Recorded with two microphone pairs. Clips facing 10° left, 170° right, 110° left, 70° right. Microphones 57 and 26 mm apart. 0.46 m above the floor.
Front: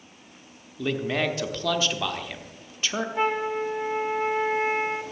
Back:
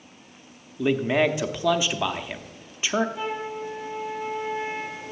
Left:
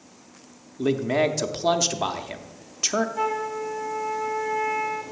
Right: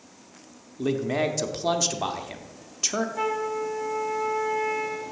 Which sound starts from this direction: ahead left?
A flute, at 3.1 s.